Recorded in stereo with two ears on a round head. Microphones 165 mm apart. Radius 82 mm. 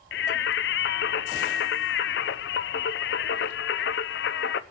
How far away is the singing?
About 0.6 m.